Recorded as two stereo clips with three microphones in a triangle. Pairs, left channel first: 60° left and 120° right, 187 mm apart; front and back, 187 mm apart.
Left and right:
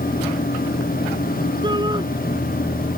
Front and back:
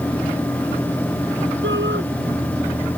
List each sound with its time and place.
1.6 s a shout: 175° left